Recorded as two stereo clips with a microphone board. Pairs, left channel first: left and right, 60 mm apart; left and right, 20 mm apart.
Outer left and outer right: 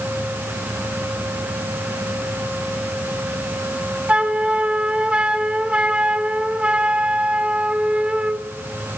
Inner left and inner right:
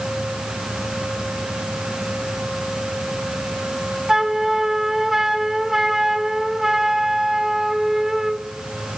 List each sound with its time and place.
4.1 s a flute: 20° right (ahead or behind), 0.6 m